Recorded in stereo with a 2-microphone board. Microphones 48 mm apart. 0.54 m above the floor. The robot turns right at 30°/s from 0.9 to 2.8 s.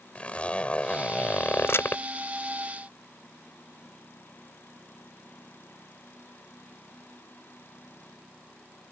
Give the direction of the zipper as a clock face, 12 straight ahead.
11 o'clock.